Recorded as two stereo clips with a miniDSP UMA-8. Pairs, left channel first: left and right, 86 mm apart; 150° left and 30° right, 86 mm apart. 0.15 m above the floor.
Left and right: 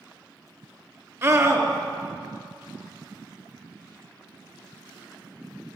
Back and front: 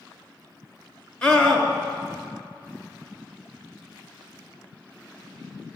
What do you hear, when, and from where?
1.2 s a scream: 135° right, 2.5 m